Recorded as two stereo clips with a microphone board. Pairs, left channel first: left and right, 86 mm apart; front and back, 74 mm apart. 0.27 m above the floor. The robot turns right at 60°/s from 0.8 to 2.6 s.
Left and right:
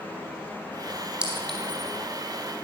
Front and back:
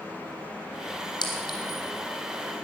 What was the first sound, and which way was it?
A clink, 10° right.